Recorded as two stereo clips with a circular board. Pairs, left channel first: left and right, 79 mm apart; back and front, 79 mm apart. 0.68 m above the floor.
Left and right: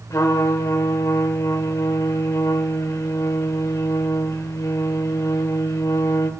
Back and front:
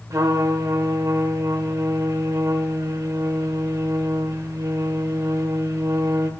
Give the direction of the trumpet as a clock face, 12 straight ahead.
11 o'clock.